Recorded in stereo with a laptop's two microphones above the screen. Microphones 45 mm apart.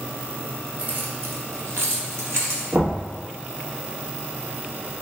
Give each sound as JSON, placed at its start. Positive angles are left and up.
{"t": 0.8, "sound": "keys jangling", "side_deg": -30, "distance_m": 0.5}
{"t": 2.7, "sound": "knocking", "side_deg": -70, "distance_m": 1.1}